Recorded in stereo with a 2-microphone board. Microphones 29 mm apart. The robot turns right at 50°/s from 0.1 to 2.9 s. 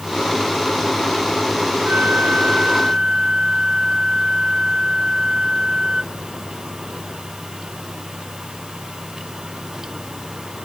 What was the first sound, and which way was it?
A flute, 75° right.